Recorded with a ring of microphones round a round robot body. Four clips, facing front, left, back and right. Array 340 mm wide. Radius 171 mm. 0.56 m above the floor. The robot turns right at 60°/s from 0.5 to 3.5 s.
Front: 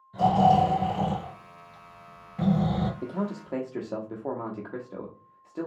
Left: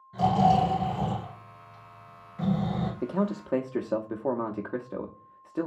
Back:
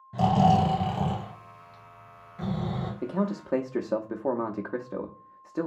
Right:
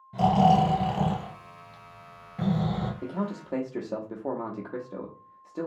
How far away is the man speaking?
About 0.6 m.